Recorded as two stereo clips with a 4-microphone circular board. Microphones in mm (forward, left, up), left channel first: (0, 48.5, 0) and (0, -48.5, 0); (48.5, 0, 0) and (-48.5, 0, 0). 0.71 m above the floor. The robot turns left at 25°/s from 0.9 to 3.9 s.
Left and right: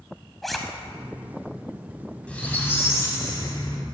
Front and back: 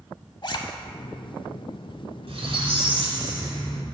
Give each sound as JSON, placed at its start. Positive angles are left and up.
{"t": 0.4, "sound": "a zipper", "azimuth_deg": 0, "distance_m": 0.7}
{"t": 2.3, "sound": "a squeak", "azimuth_deg": 170, "distance_m": 1.5}